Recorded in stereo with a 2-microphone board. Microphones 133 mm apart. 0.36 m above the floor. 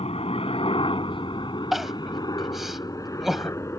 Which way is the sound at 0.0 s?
50° left (ahead or behind).